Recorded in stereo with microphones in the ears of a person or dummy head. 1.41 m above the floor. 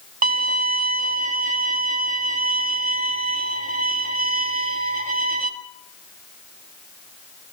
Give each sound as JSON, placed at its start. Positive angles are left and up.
{"t": 0.2, "sound": "a violin", "side_deg": -45, "distance_m": 1.8}